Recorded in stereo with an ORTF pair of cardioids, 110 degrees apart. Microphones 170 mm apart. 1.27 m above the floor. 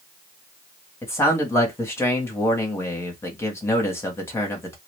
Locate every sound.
1.0 s a man speaking: 15° left, 0.9 m